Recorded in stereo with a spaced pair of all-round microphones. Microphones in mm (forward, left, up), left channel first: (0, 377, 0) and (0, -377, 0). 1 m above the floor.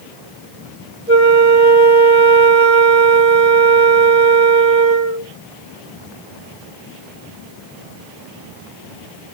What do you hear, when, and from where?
1.1 s a flute: 70° left (ahead or behind), 4 m